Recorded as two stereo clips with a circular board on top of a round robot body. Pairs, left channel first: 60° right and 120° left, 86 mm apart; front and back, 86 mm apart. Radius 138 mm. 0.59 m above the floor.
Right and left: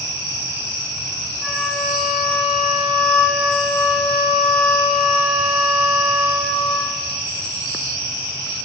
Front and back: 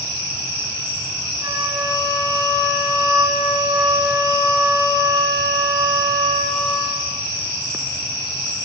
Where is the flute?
150° right, 2.5 m.